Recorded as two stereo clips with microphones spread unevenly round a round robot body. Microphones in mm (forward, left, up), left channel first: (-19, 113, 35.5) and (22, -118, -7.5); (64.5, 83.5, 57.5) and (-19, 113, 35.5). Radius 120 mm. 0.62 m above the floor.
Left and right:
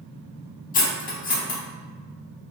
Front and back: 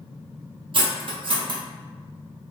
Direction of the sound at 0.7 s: 160° left.